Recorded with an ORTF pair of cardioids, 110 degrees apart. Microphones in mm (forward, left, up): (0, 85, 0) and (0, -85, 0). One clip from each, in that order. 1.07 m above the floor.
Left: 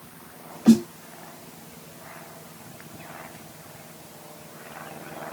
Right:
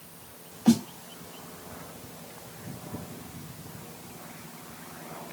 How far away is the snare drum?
About 1.7 m.